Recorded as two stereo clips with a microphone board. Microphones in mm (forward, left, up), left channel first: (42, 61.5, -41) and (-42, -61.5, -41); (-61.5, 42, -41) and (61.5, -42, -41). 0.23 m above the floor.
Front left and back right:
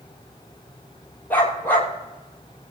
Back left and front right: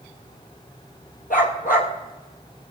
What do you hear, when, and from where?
1.3 s a dog barking: 130° left, 2.5 m